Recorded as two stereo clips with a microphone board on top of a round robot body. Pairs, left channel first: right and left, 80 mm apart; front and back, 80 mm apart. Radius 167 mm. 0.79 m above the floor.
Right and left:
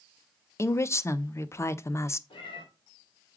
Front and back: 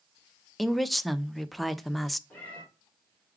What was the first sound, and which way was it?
A woman speaking, 90° right.